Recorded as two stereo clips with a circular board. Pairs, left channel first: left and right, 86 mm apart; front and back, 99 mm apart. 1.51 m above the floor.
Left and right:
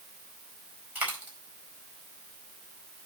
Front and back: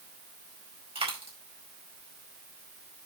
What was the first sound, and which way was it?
A dropped coin, 160° right.